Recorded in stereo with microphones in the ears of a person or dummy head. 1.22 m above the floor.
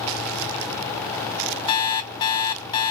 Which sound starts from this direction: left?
An alarm clock, at 1.7 s.